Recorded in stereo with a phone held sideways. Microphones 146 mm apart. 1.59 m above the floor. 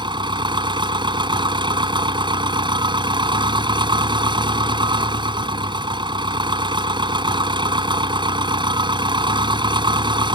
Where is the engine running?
35° right (ahead or behind).